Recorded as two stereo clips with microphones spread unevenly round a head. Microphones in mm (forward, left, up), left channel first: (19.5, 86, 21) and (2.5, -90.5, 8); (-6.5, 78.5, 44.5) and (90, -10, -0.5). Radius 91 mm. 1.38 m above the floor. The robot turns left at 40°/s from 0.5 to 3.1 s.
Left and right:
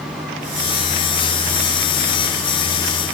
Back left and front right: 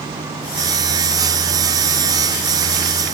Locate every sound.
Only background noise.